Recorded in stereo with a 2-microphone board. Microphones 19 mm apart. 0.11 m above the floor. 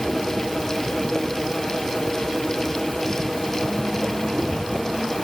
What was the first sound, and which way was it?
Only background noise.